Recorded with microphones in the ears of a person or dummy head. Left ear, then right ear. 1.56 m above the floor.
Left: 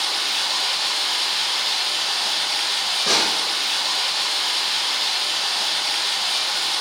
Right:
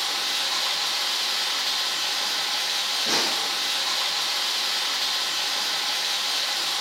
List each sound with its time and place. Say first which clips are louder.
0.0 s running water: left 3 dB; 15° left (ahead or behind), 1.1 m
3.1 s a snare drum: left 6 dB; 75° left (ahead or behind), 0.9 m